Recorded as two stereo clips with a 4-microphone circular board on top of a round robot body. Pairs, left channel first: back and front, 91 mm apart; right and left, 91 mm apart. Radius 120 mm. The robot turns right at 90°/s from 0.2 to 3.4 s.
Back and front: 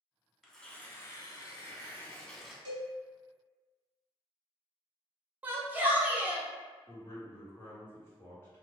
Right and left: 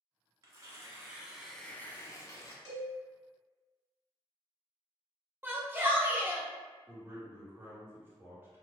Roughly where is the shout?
Ahead left.